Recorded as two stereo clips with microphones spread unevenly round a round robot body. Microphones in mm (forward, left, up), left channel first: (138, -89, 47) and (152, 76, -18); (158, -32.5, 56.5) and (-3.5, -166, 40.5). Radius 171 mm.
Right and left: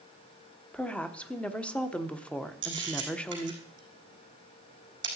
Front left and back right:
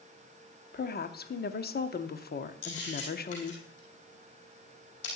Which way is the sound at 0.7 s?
5° left.